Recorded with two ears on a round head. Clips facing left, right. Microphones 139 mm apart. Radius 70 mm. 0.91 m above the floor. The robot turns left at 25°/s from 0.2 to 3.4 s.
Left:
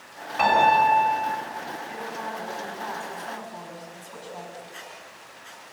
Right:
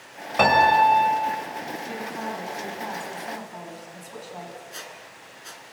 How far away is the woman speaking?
About 6 m.